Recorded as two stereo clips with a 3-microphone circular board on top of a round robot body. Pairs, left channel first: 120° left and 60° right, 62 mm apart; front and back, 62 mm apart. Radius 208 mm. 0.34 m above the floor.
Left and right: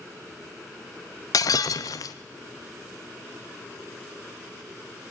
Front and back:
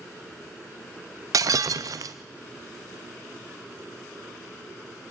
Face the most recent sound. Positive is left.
turn(degrees=150)